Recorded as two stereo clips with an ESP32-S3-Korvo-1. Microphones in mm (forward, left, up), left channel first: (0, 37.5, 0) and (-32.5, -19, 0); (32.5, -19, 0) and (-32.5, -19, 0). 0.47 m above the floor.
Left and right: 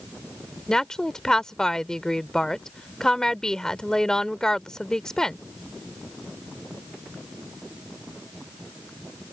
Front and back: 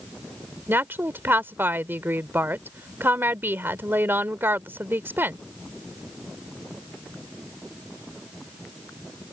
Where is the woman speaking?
140° left.